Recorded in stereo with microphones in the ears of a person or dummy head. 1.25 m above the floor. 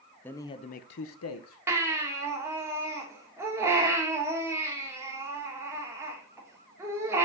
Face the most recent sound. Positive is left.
turn(degrees=-15)  # may be behind; listen again after turning